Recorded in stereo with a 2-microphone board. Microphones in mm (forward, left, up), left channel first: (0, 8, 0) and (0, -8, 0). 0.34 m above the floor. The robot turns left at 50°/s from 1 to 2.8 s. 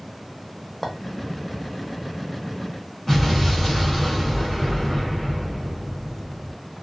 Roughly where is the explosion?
Left.